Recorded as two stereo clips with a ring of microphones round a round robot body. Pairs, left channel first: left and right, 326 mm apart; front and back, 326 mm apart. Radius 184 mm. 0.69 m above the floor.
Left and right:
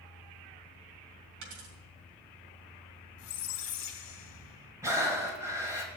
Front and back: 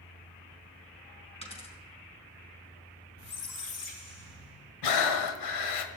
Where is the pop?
I don't hear a pop.